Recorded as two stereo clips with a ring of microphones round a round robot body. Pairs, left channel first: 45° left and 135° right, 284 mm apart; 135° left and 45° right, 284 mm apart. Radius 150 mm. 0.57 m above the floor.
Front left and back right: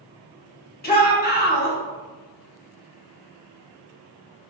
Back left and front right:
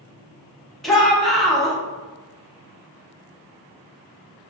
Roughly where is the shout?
Ahead left.